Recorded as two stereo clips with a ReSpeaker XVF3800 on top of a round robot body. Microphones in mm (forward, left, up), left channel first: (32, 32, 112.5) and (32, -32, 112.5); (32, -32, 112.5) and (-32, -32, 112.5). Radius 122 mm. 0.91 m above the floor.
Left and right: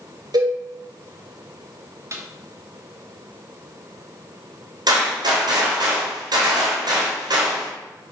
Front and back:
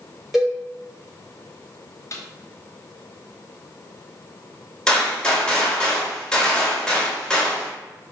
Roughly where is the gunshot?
Right.